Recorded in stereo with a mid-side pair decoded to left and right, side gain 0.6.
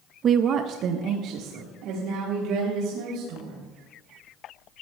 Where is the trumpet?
No trumpet in this recording.